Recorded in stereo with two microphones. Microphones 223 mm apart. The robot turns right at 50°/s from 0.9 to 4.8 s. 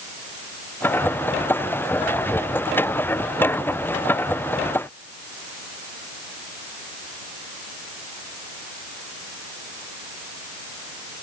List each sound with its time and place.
Only background noise.